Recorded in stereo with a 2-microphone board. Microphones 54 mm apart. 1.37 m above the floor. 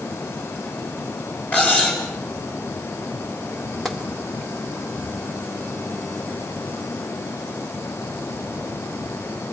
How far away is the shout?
No shout in this recording.